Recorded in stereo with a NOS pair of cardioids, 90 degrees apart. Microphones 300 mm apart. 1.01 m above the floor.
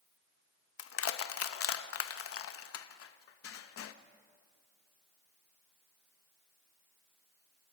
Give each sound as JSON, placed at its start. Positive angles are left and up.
{"t": 0.8, "sound": "crushing", "azimuth_deg": 55, "distance_m": 1.1}